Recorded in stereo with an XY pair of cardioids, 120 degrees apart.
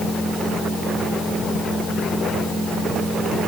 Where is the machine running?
65° left, 4 m.